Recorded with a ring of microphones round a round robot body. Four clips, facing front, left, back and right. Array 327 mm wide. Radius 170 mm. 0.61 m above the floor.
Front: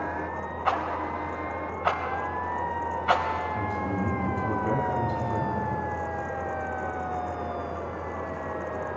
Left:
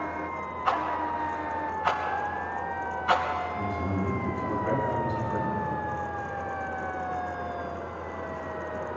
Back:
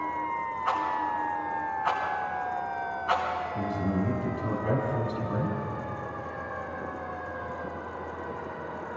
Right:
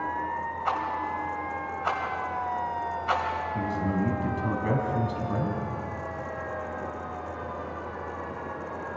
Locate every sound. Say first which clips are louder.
0.7 s a rattle: left 3 dB, front 1 dB; 5° left, 3.5 m
3.5 s a man speaking: right 2 dB, even; 90° right, 6.5 m